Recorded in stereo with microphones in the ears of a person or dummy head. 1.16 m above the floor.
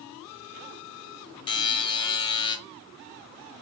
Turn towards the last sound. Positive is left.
turn(degrees=20)  # may be behind; listen again after turning